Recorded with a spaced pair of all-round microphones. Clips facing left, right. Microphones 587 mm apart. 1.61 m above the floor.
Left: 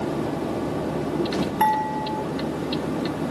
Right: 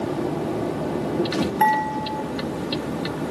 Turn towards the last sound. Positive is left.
turn(degrees=30)  # may be behind; listen again after turning